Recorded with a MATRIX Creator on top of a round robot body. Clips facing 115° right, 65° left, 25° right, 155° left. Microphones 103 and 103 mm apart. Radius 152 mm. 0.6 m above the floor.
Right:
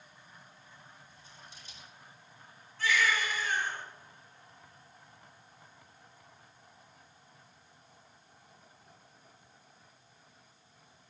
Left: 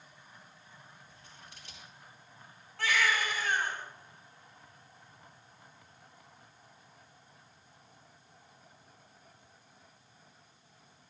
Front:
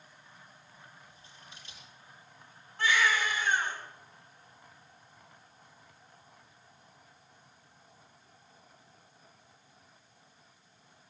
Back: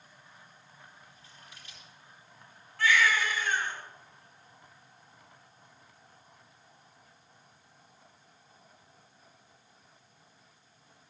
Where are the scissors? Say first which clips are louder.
Even, even; 45° left, 8.5 m.